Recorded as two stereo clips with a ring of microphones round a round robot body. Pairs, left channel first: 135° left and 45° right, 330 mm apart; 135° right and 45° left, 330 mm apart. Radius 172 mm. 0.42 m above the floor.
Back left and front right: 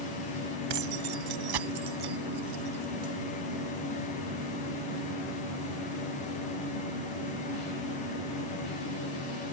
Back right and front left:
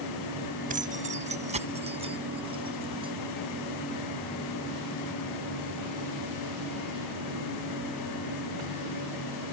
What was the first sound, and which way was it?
Keys jangling, 25° right.